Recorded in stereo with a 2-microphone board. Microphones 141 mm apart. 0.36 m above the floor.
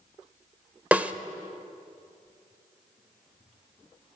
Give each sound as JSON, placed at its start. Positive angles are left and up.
{"t": 0.9, "sound": "a snare drum", "side_deg": -10, "distance_m": 0.9}